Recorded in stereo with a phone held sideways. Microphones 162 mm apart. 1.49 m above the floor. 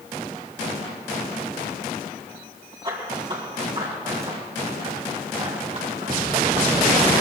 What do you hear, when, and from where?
2.8 s running footsteps: 35° right (ahead or behind), 5.5 m; by 6.7 s 50° right (ahead or behind), 3 m